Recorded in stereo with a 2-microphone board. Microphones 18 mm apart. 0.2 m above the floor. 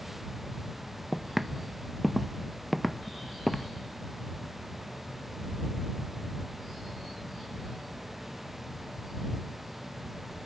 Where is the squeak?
No squeak in this recording.